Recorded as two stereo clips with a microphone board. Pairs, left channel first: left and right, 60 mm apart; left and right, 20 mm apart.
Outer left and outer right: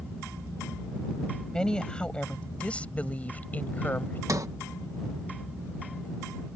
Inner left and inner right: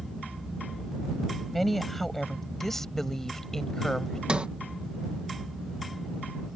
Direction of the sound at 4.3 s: 65° right (ahead or behind).